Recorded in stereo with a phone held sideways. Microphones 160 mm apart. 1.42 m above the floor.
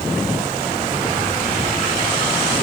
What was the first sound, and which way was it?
Only background noise.